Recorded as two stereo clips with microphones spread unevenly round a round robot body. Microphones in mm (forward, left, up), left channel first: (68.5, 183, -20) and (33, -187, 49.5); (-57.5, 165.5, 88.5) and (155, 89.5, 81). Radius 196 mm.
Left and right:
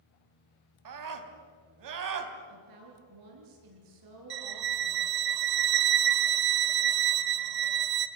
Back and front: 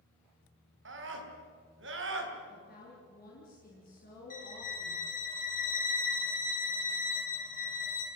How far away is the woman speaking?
About 7 m.